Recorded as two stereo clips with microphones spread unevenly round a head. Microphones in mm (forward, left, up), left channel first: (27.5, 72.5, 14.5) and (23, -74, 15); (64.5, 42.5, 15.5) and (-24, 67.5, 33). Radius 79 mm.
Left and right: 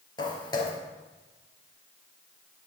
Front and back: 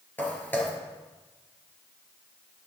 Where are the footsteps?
55° left, 2.0 m.